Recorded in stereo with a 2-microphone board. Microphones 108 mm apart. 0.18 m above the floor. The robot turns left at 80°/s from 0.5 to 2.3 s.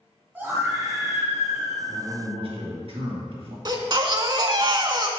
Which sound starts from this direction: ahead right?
A man speaking, at 1.9 s.